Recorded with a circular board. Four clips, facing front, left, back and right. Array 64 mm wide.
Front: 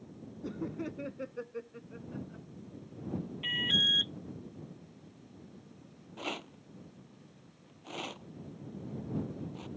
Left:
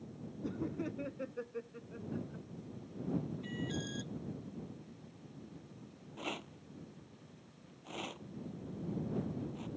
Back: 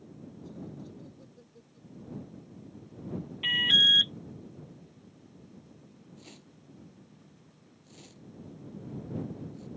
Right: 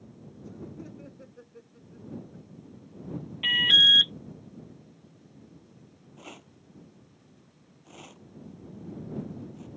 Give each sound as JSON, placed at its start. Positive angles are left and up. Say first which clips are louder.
{"t": 0.4, "sound": "laughter", "louder": "left 4 dB, front 8 dB", "azimuth_deg": 25}
{"t": 3.4, "sound": "an alarm", "louder": "right 16 dB, back 7 dB", "azimuth_deg": -110}
{"t": 6.2, "sound": "a rattle", "louder": "left 5 dB, front 12 dB", "azimuth_deg": 15}